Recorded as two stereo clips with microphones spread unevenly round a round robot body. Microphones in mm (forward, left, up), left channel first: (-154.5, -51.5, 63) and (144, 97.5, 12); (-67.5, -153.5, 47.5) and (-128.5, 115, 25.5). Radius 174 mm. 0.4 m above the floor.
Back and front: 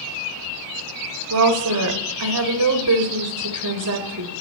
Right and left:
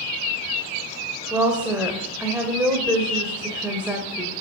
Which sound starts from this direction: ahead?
A woman speaking, at 1.3 s.